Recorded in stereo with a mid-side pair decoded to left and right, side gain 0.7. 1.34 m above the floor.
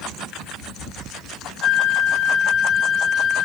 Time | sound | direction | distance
1.6 | a flute | 30° left | 2 m